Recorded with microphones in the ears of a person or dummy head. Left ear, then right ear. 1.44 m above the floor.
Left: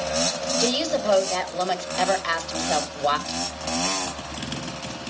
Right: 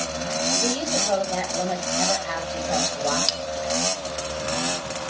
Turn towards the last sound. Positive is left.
turn(degrees=-65)  # may be behind; listen again after turning